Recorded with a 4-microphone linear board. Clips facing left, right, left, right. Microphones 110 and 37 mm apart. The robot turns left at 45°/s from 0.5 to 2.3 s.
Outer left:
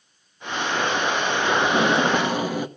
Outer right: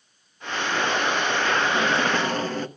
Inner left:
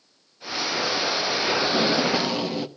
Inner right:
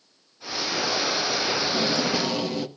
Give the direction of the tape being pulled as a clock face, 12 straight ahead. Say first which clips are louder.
Outer left 3 dB, inner left 3 dB; 11 o'clock.